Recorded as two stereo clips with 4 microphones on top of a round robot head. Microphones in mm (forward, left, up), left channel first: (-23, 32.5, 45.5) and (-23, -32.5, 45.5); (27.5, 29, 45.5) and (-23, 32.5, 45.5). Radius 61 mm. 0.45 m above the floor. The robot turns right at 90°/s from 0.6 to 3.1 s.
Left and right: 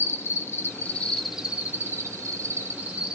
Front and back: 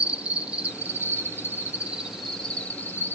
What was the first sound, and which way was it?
An insect, 120° left.